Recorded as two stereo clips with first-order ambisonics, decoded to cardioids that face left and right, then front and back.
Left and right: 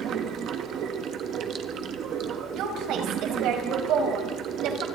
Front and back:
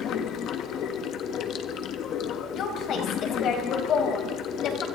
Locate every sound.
0.0 s running water: 45° right, 1.4 m
2.5 s a woman speaking: 50° right, 4.5 m